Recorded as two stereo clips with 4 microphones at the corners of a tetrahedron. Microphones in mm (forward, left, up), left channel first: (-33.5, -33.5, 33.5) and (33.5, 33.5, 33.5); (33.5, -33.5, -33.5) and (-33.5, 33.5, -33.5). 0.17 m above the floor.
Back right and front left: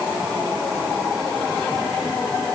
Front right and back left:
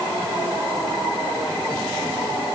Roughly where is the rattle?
No rattle in this recording.